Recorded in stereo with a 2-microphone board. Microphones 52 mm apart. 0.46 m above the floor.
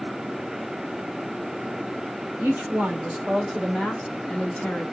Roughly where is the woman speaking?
Right.